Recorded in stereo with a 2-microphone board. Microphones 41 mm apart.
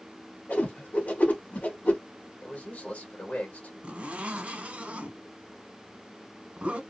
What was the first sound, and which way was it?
A whoosh, 45° left (ahead or behind).